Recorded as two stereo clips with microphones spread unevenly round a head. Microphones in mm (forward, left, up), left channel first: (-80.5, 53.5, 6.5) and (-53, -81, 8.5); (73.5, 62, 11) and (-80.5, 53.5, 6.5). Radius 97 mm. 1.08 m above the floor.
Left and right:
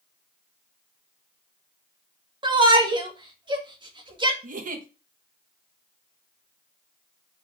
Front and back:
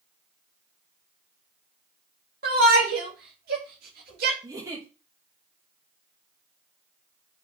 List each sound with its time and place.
2.4 s a shout: 135° right, 2 m
4.4 s a giggle: 105° right, 1.2 m